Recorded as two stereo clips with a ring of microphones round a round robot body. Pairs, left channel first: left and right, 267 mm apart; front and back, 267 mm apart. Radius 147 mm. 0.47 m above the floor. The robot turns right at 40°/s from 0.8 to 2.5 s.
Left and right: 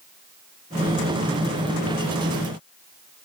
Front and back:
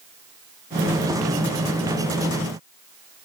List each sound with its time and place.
Only background noise.